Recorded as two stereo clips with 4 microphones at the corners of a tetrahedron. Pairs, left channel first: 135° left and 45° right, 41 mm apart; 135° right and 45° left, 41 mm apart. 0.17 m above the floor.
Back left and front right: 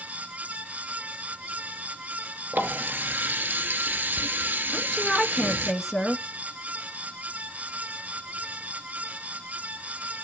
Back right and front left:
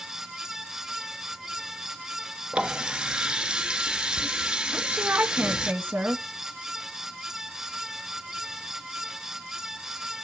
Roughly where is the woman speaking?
Ahead left.